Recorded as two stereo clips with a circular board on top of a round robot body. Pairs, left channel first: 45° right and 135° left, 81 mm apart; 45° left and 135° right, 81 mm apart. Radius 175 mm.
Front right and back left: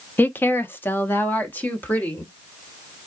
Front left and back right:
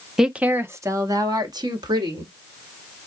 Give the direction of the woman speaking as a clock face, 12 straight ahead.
2 o'clock.